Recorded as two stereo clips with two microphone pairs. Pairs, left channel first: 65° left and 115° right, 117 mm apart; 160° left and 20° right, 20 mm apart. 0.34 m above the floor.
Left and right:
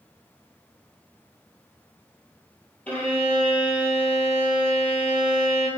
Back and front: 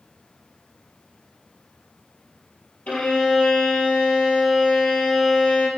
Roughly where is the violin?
Behind left.